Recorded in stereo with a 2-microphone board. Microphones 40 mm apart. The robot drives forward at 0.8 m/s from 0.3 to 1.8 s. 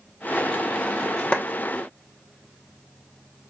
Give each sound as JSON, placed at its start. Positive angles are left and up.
{"t": 1.3, "sound": "a clap", "side_deg": 30, "distance_m": 1.0}